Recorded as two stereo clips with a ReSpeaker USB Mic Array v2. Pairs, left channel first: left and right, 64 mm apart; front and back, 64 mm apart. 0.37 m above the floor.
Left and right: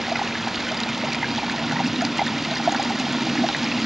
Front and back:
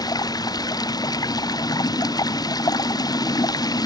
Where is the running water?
5° right.